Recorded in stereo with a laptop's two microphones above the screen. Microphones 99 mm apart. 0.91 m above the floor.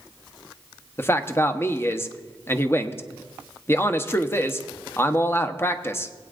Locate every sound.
1.0 s a man speaking: 25° left (ahead or behind), 0.9 m